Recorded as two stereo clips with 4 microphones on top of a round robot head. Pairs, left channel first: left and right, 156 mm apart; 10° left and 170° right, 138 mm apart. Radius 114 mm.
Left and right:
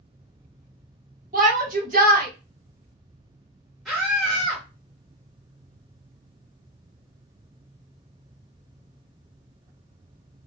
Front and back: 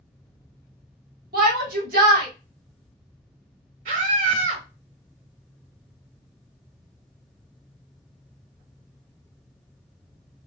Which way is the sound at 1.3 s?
140° right.